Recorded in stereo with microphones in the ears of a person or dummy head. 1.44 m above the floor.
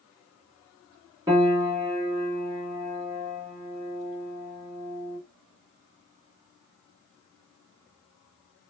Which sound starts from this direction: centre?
A piano, at 1.3 s.